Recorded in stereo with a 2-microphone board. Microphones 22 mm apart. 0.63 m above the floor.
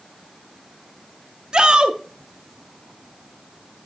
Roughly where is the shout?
Right.